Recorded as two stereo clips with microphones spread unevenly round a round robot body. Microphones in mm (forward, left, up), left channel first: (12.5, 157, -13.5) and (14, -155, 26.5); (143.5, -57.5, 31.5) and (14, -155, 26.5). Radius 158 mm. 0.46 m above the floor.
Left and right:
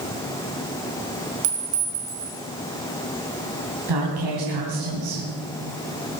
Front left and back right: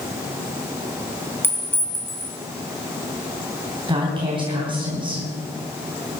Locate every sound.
1.4 s a clink: 40° right, 4 m
3.9 s a woman speaking: 85° right, 3.5 m